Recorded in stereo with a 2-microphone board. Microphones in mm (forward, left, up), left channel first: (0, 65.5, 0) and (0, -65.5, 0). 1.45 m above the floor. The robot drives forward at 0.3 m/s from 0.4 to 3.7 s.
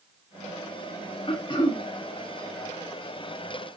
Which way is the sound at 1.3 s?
40° left (ahead or behind).